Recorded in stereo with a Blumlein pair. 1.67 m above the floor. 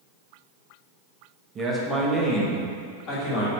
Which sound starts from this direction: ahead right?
A man speaking, at 1.6 s.